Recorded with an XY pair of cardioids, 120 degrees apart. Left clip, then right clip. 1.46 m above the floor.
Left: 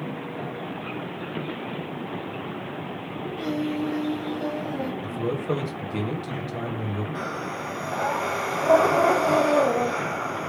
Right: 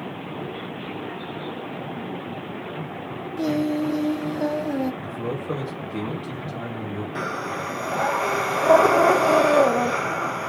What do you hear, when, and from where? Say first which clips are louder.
3.4 s singing: right 5 dB; 45° right, 0.8 m
5.0 s a man speaking: left 1 dB; 30° left, 1.4 m
7.2 s breathing: right 6 dB; 20° right, 0.6 m